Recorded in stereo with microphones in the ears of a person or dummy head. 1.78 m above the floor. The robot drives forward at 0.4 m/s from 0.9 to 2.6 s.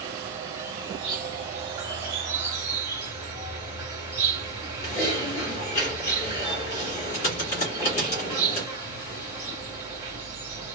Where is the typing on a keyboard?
30° left (ahead or behind), 1.7 m.